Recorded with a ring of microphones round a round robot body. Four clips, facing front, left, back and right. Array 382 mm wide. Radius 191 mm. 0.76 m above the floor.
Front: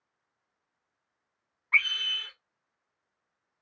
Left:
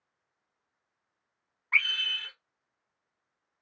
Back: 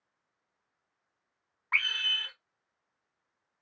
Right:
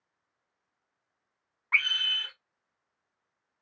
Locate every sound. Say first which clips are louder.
1.7 s a scream: even, front 3 dB; 150° right, 2.5 m